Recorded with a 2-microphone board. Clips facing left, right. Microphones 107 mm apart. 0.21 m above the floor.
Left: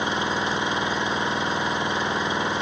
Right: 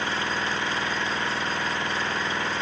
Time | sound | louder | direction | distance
0.0 | an engine running | left 3 dB | 20° left (ahead or behind) | ?